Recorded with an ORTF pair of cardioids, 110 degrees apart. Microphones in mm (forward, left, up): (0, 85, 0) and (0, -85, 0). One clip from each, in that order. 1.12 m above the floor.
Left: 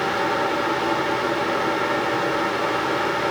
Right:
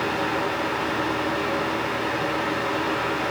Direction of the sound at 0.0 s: 55° left.